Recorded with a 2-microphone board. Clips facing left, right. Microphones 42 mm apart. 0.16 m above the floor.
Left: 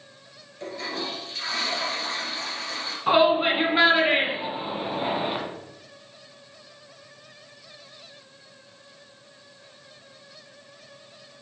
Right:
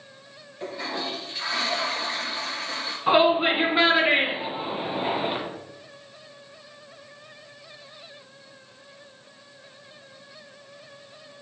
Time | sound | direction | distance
0.6 | a toilet flushing | 15° right (ahead or behind) | 2.5 m
3.1 | a shout | centre (ahead or behind) | 1.9 m